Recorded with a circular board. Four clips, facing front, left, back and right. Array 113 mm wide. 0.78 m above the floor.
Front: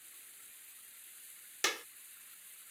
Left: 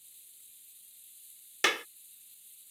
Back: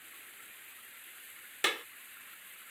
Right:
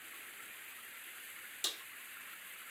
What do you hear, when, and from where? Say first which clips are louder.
0.0 s running water: right 23 dB, back 10 dB; 115° right
1.6 s a clap: left 20 dB, back 3 dB; 100° left